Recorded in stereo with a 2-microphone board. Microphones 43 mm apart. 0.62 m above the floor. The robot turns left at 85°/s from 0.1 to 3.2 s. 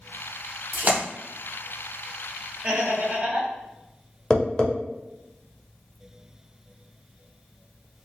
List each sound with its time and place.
0.7 s a splash: 50° right (ahead or behind), 1.3 m; by 1.0 s 25° right (ahead or behind), 1.3 m
2.6 s laughter: 45° right, 1.2 m; by 3.5 s 95° right, 1.2 m
4.3 s tapping: 20° left (ahead or behind), 0.8 m